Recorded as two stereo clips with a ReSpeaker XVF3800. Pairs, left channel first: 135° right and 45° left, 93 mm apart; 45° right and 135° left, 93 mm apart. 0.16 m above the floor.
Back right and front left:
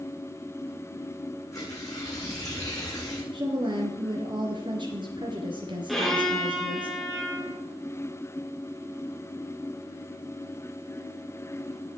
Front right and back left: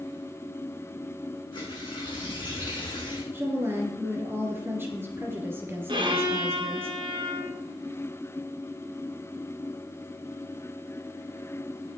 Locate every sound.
1.5 s tearing paper: 80° right, 5 m
3.3 s a woman speaking: 70° left, 3 m
5.9 s a violin: 135° left, 2.5 m